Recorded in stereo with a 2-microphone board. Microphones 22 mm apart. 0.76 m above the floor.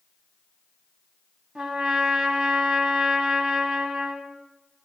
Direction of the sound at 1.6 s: 50° right (ahead or behind).